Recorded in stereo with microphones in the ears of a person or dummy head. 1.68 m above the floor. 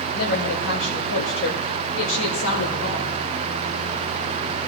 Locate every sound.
0.1 s a woman speaking: 85° left, 5 m